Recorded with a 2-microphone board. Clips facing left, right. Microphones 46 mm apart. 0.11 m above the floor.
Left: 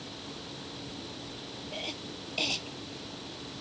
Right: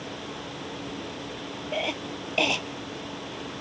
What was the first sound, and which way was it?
A cough, 45° right (ahead or behind).